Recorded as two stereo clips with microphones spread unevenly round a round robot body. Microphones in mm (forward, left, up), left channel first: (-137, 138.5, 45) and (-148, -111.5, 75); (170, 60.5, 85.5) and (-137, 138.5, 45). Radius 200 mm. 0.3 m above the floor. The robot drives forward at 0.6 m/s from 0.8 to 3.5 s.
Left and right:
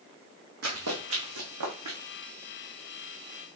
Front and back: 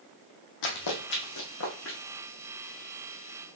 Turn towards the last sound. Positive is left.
turn(degrees=-105)